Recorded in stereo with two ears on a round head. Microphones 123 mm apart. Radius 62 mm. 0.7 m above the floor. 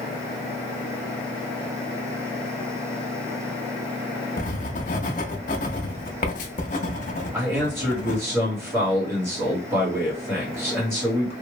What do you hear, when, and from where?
4.4 s writing: 60° left (ahead or behind), 0.5 m
7.3 s a man speaking: 20° right (ahead or behind), 1.8 m